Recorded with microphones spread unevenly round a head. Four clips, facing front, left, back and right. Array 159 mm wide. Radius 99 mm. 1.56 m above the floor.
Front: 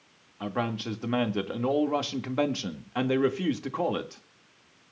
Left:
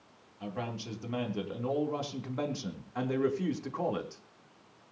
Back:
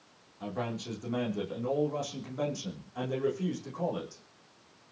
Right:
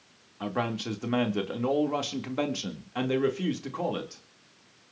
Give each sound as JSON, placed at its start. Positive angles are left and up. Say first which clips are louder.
{"t": 0.4, "sound": "a man speaking", "louder": "right 7 dB, front 5 dB", "azimuth_deg": -50, "distance_m": 3.5}